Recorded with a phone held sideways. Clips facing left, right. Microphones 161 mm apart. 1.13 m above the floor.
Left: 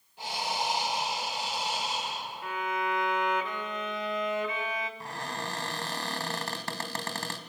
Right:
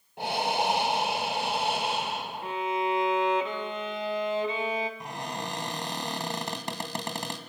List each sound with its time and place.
0.2 s breathing: 60° right (ahead or behind), 1.6 m
2.4 s a violin: 30° right (ahead or behind), 2.0 m
5.0 s a cupboard door: 20° right (ahead or behind), 2.5 m